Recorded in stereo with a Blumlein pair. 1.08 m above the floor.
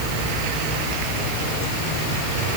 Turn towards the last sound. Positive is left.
No sound to turn to.